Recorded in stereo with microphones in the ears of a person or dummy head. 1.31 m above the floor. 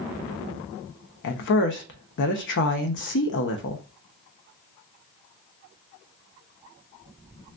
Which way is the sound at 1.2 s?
60° left (ahead or behind).